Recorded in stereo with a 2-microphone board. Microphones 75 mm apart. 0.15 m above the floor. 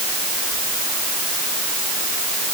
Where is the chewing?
No chewing in this recording.